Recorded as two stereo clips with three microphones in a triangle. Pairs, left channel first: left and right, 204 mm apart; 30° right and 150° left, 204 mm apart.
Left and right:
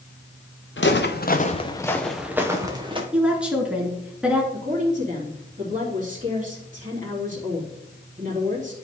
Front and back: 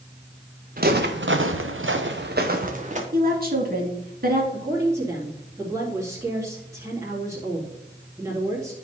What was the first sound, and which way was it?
Footsteps, 105° left.